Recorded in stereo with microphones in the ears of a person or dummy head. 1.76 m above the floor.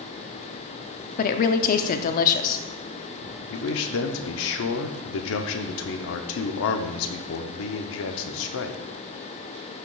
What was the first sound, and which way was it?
A woman speaking, 45° left (ahead or behind).